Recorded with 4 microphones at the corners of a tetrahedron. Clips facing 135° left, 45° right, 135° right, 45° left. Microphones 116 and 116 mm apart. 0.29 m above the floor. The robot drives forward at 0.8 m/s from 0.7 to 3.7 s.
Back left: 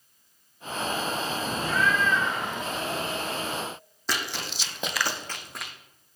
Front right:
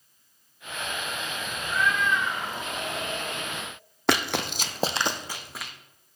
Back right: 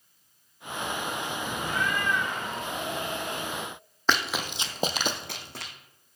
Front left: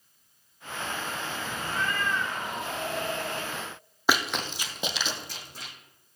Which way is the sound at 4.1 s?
30° right.